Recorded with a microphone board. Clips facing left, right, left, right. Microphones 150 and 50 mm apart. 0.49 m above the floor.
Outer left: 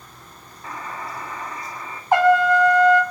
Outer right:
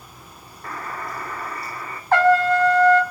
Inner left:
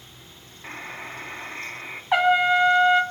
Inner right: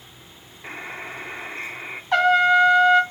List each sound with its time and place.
0.6 s a buzzer: 5° left (ahead or behind), 3 m
2.1 s a trumpet: 15° left (ahead or behind), 1.9 m